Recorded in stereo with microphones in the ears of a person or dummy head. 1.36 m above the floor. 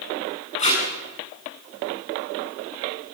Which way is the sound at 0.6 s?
35° left (ahead or behind).